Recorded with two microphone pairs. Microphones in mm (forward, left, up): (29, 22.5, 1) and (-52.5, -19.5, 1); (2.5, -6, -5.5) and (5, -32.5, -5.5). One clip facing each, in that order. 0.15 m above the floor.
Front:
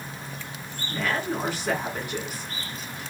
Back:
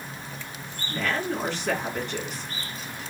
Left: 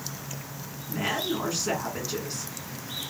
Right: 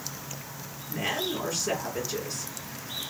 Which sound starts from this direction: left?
A woman speaking, at 0.9 s.